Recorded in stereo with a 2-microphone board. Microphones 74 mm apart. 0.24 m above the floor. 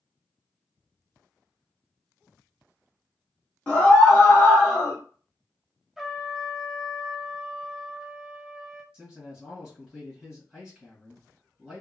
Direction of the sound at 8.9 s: 10° right (ahead or behind).